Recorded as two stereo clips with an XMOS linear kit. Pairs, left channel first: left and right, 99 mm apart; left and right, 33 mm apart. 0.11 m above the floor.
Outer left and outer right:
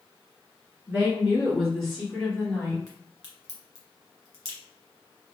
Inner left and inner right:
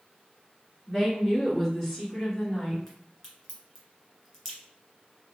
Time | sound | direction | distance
0.9 | a woman speaking | 15° right (ahead or behind) | 1.5 m
2.9 | a crack | 10° left (ahead or behind) | 1.8 m